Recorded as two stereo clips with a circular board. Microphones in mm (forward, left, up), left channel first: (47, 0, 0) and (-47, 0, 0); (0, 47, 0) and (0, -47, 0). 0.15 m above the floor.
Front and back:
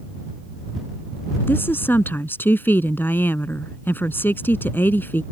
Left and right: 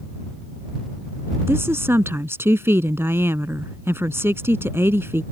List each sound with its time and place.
1.5 s a woman speaking: 50° right